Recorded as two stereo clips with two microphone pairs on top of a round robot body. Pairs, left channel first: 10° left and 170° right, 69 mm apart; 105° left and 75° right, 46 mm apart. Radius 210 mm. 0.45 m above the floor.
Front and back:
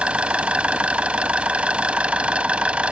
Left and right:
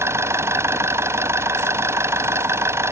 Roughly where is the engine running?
Right.